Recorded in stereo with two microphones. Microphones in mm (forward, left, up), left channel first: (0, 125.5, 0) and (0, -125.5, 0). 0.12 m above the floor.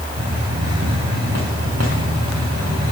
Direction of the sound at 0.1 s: 85° right.